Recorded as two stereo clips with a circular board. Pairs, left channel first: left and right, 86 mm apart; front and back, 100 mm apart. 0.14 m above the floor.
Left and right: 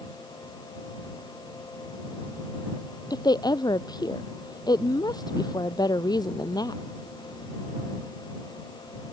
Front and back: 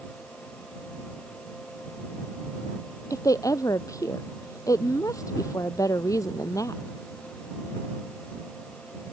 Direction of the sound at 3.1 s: 55° left.